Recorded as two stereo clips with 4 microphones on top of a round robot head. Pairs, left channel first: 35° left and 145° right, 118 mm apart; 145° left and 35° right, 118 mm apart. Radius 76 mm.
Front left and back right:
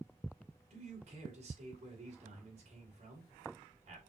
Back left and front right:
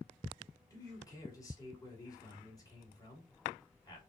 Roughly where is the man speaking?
Behind.